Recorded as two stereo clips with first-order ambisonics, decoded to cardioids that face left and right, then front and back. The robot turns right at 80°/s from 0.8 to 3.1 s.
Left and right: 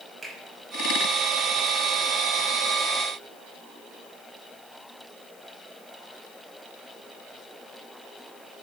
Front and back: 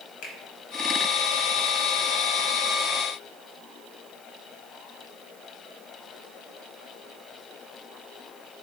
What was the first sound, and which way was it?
A finger snap, 10° right.